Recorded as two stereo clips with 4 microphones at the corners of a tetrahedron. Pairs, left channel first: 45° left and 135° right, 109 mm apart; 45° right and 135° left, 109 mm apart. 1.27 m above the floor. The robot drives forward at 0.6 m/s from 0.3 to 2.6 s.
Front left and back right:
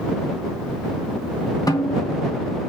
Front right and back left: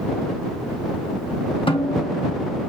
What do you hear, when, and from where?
1.7 s a snare drum: 10° right, 1.7 m; by 2.3 s 15° right, 1.3 m